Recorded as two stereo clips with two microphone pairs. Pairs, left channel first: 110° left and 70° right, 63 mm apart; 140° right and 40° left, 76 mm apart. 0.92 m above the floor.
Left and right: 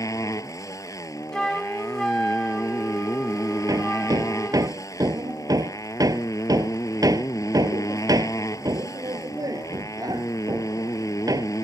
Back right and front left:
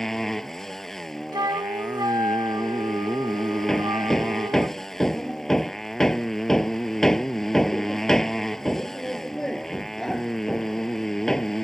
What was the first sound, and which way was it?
A motorcycle, 135° left.